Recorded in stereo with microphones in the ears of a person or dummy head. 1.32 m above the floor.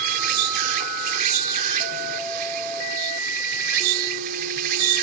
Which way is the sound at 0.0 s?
55° right (ahead or behind).